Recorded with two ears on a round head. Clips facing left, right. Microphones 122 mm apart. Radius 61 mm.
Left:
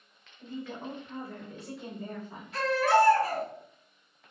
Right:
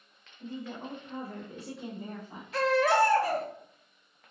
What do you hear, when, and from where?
0.4 s a woman speaking: 60° right (ahead or behind), 1.4 m; by 2.4 s 20° right (ahead or behind), 1.7 m
2.5 s a baby crying: 60° right (ahead or behind), 0.8 m